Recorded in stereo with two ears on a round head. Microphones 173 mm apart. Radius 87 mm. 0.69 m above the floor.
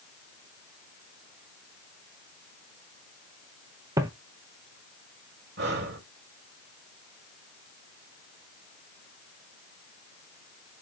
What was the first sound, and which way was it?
Footsteps, 15° right (ahead or behind).